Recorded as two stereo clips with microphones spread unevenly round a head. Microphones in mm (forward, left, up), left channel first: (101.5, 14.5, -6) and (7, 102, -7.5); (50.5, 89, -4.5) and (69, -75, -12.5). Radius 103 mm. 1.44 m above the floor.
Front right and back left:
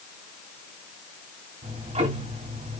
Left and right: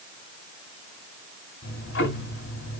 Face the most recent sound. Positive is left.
turn(degrees=110)